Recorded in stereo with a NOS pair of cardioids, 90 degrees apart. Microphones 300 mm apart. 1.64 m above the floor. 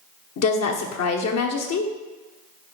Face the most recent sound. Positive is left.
turn(degrees=60)